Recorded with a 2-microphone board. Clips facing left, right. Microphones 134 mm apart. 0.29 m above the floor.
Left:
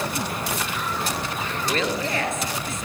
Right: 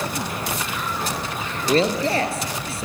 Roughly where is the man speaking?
Right.